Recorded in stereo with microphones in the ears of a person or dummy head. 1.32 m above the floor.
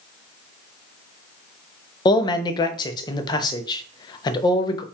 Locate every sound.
2.0 s a man speaking: 25° left (ahead or behind), 0.5 m